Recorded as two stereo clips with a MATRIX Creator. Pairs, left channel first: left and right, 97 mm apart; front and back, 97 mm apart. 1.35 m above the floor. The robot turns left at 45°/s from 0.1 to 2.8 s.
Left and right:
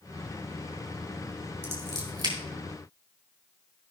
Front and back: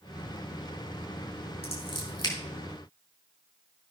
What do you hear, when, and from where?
1.6 s scissors: 15° right, 4 m; by 2.3 s 50° right, 4 m